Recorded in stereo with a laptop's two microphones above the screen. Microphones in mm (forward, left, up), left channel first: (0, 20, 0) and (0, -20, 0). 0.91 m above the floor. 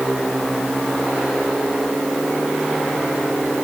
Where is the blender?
I don't hear a blender.